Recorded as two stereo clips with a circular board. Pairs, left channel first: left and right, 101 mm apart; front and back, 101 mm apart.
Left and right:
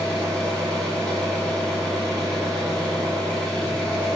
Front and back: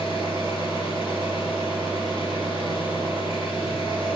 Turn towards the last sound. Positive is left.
turn(degrees=0)